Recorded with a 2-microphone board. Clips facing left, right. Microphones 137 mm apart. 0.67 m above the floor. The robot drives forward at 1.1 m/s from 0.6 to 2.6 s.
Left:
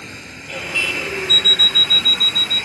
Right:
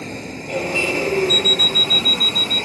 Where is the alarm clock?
60° right (ahead or behind); by 2.6 s 45° right (ahead or behind).